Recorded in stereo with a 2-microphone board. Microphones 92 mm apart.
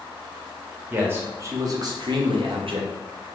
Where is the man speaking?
20° right (ahead or behind), 1.2 m; by 3.0 s 75° right (ahead or behind), 0.9 m.